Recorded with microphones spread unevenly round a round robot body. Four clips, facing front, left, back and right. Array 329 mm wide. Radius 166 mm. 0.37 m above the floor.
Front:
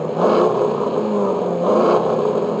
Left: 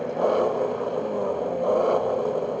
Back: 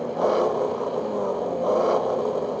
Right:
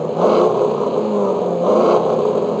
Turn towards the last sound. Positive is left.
turn(degrees=-45)